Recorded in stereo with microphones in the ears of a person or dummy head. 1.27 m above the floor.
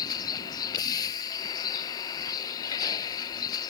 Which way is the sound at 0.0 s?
20° left (ahead or behind).